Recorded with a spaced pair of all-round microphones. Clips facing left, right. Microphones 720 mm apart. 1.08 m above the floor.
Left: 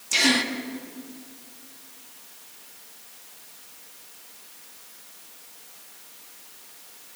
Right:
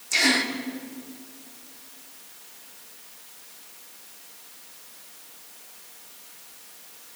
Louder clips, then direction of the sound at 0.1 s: Left 2 dB; 60° left (ahead or behind).